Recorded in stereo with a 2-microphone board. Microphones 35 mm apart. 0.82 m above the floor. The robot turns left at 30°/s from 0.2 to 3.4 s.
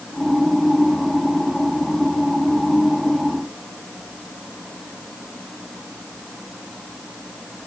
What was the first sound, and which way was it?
Only background noise.